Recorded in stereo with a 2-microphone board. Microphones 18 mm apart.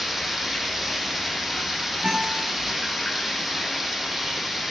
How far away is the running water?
About 4 m.